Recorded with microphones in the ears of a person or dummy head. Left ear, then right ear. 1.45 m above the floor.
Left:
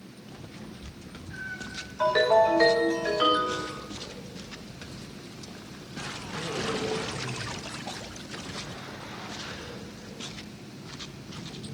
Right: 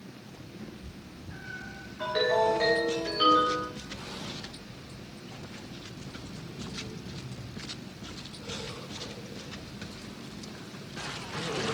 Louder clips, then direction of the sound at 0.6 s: Left 1 dB; 5° right (ahead or behind).